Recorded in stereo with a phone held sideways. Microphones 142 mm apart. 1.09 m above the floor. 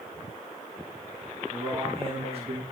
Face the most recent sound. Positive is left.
turn(degrees=-45)  # may be behind; listen again after turning